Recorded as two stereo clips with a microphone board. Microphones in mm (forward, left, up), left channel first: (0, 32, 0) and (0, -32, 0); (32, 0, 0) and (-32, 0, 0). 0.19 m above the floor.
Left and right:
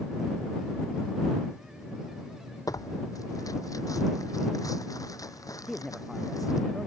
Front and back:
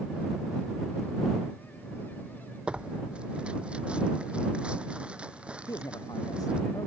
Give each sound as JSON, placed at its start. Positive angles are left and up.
{"t": 2.7, "sound": "tearing paper", "azimuth_deg": 110}
{"t": 5.7, "sound": "a man speaking", "azimuth_deg": 5}